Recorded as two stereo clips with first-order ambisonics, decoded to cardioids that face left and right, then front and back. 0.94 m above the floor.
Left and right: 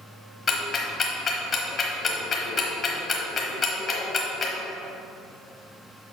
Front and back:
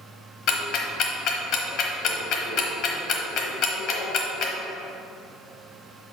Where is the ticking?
30° left, 1.0 m.